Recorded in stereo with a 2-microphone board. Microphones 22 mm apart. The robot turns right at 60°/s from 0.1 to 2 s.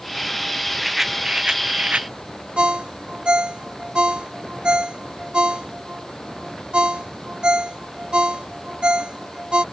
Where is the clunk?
No clunk in this recording.